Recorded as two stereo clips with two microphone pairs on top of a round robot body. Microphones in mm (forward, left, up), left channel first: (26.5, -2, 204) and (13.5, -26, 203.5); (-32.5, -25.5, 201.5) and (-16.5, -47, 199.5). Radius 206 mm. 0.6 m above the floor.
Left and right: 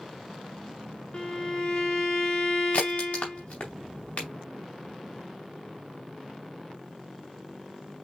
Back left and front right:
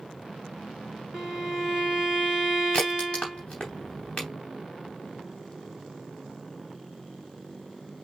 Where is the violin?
10° left, 1.9 m.